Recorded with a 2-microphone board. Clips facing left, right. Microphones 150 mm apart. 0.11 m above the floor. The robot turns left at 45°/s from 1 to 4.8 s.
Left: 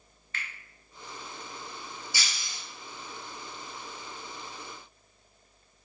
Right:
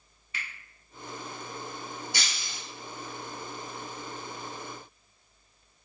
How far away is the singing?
I don't hear singing.